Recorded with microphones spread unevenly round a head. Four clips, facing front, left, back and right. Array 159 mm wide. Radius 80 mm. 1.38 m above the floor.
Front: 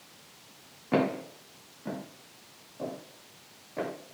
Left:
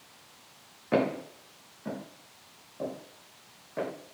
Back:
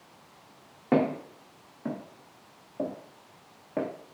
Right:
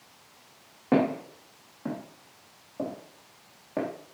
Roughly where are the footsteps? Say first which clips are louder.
Right 3 dB, back 2 dB; behind right.